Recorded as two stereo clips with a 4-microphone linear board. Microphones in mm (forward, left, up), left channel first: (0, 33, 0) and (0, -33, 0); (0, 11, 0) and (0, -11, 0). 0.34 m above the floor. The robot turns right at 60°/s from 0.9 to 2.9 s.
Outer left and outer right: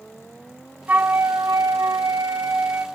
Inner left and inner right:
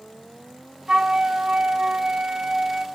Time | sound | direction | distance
0.9 | a flute | 155° right | 0.9 m